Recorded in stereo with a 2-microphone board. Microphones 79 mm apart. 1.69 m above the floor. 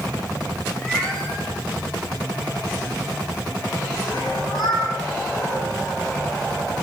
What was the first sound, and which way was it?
A cat meowing, 10° left (ahead or behind).